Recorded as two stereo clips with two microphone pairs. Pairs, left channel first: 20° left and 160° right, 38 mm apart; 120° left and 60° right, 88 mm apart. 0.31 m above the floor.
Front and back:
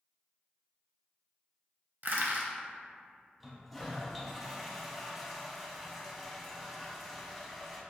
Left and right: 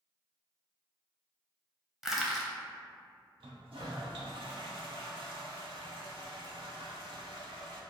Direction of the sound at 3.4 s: 70° right.